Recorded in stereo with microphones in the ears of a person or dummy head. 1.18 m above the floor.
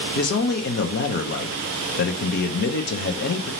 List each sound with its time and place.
0.1 s a man speaking: 55° left (ahead or behind), 0.7 m